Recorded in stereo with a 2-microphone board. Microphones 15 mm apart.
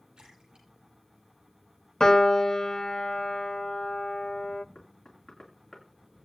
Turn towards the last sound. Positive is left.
turn(degrees=35)  # may be behind; listen again after turning